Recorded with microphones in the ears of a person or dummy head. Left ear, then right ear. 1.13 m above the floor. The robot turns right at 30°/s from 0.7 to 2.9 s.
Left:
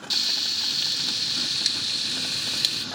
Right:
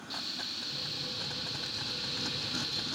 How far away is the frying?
About 1.3 m.